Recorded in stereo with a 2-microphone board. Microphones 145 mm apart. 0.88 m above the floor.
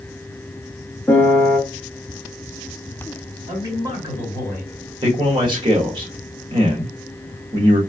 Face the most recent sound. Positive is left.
turn(degrees=-35)  # may be behind; listen again after turning